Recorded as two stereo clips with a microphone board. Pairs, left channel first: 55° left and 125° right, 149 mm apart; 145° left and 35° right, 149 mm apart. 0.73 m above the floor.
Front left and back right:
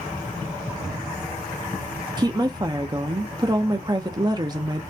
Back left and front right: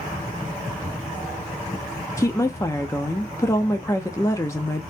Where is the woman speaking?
160° right, 0.6 m.